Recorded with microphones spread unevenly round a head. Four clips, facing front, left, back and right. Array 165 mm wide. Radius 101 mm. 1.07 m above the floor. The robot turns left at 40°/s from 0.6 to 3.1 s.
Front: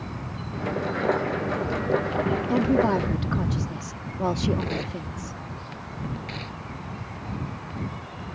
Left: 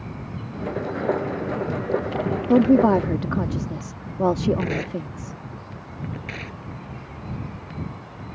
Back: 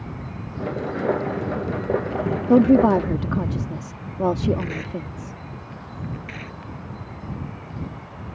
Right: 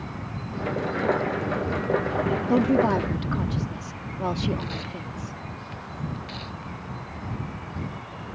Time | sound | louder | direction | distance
2.5 | a woman speaking | left 6 dB, back 9 dB | 150° left | ?
4.6 | tearing paper | left 7 dB, back 1 dB | 90° left | ?